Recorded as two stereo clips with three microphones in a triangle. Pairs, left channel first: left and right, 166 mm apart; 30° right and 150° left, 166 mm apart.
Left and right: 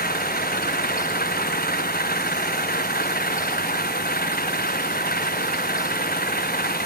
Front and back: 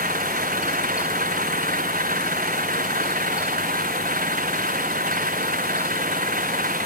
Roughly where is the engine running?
Behind left.